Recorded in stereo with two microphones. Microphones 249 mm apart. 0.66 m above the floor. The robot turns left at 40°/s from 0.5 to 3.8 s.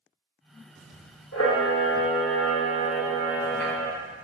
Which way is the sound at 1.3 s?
90° left.